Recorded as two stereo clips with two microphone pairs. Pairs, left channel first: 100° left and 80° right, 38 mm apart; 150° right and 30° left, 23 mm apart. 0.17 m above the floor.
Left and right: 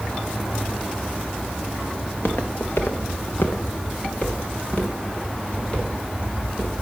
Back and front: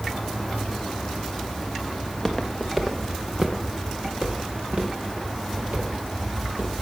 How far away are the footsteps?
About 1.9 m.